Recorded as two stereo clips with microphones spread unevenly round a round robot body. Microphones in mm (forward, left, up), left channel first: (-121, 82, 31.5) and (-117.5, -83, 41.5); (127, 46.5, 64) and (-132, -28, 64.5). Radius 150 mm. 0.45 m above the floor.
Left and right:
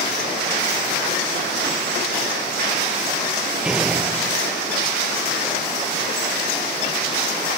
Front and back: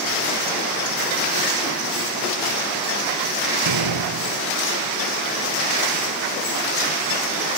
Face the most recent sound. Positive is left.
turn(degrees=-175)